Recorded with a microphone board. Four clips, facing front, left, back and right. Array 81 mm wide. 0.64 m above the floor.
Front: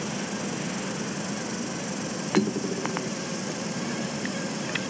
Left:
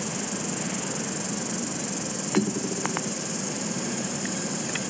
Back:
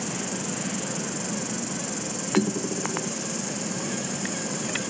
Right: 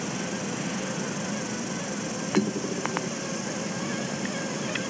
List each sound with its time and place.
0.0 s an insect: 100° right, 0.7 m